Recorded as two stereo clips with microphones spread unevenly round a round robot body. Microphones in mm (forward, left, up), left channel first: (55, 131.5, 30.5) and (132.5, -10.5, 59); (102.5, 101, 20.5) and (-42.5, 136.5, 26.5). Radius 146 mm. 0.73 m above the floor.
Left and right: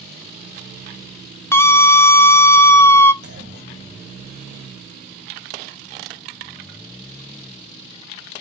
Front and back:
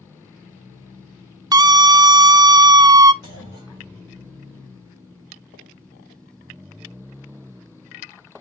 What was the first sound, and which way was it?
A scream, 140° left.